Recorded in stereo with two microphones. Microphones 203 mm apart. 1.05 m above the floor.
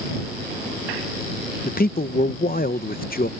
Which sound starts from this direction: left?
A man speaking, at 1.6 s.